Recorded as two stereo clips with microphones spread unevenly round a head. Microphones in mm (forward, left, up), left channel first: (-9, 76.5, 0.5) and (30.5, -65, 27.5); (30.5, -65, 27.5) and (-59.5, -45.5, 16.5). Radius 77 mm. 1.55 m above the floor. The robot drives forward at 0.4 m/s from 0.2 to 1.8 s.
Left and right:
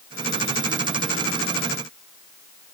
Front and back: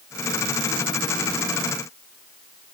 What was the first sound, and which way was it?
Only background noise.